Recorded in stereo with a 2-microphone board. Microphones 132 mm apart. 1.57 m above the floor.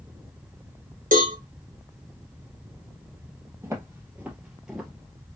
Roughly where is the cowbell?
Right.